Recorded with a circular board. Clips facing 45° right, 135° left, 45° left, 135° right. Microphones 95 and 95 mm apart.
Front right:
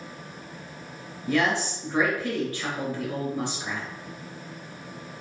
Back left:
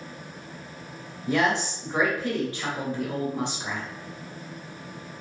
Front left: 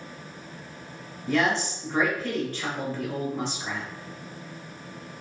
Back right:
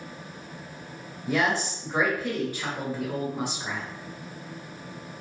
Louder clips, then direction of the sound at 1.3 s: Back left 1 dB, front left 1 dB; 160° left.